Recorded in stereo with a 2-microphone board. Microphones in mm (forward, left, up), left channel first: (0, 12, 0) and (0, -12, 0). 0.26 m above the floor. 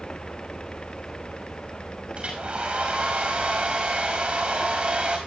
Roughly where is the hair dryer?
Right.